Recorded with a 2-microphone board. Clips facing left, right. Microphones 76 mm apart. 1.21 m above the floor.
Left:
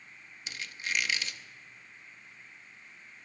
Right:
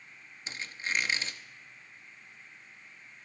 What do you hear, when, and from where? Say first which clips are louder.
0.5 s a squeak: right 1 dB; 30° right (ahead or behind), 0.6 m